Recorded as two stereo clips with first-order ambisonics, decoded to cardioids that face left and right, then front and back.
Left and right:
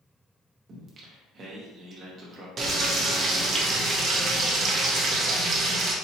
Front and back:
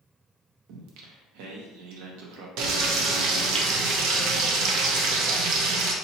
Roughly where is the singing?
Behind right.